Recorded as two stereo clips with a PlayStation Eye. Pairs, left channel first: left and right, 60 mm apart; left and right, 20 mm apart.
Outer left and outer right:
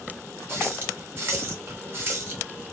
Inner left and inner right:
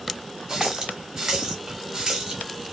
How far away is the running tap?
About 1.0 m.